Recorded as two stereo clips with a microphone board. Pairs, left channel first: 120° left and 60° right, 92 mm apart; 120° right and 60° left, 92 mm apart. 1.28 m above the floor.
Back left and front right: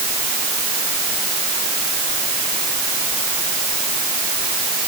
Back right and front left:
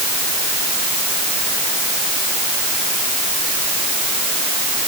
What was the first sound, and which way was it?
Only background noise.